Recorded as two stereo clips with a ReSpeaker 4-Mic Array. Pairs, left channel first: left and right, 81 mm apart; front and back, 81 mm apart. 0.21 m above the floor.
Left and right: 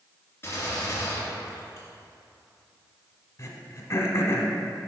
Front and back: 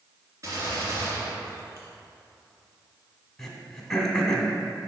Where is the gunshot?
140° left, 2.5 m.